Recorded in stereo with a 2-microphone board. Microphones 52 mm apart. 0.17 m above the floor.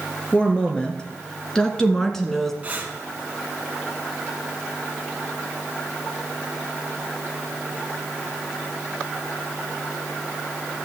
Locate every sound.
0.3 s a woman speaking: 20° left (ahead or behind), 3 m; by 2.5 s 5° left (ahead or behind), 1.8 m
2.6 s breathing: 25° right (ahead or behind), 2 m